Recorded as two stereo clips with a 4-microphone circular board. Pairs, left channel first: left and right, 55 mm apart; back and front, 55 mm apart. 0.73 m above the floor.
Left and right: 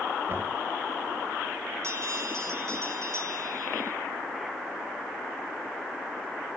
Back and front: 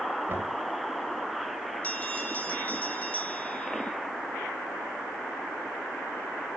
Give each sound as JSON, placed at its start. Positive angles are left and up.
{"t": 0.3, "sound": "knocking", "azimuth_deg": -45, "distance_m": 2.5}
{"t": 1.8, "sound": "a bell", "azimuth_deg": -120, "distance_m": 2.0}